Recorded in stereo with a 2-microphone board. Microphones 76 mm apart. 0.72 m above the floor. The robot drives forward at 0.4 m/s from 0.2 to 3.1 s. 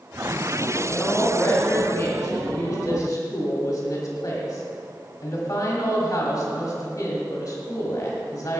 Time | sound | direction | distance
0.8 | a woman speaking | 35° left (ahead or behind) | 2.5 m